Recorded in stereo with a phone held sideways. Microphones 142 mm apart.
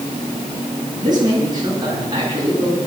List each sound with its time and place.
1.0 s a man speaking: 30° right (ahead or behind), 8.5 m